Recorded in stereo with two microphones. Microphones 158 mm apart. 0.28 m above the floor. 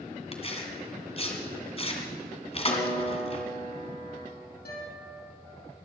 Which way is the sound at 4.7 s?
80° left.